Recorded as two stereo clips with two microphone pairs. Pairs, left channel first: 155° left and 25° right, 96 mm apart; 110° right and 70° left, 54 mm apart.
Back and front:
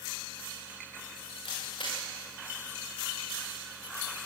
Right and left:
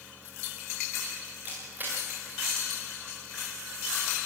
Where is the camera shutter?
125° left, 7 m.